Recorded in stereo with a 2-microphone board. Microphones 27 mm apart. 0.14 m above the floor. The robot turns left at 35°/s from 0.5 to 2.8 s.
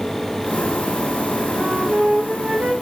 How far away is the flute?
About 3.5 m.